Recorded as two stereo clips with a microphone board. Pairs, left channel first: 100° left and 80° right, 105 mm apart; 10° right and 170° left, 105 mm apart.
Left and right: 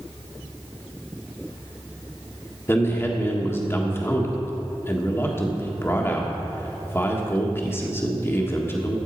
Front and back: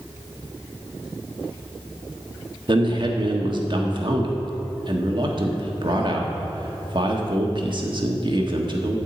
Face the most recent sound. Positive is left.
turn(degrees=160)